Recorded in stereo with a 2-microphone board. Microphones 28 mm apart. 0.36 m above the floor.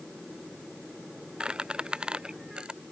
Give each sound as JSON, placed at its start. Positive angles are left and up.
{"t": 1.4, "sound": "a squeak", "side_deg": -35}